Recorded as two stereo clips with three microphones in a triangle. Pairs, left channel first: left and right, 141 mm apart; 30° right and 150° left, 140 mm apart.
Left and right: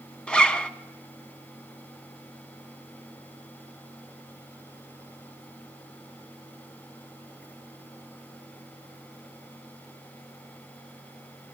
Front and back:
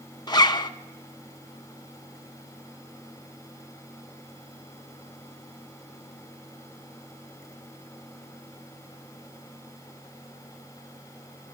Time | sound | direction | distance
0.3 | a zipper | 10° left | 0.8 m